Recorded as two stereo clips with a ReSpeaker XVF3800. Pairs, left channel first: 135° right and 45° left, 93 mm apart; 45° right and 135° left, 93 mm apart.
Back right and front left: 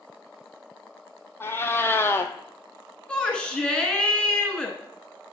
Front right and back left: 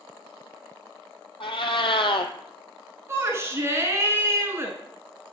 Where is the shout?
155° left, 1.3 m.